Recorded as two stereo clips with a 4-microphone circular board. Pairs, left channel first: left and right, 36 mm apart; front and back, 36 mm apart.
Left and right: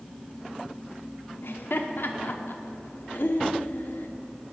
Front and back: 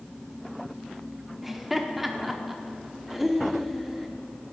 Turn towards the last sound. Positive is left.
turn(degrees=95)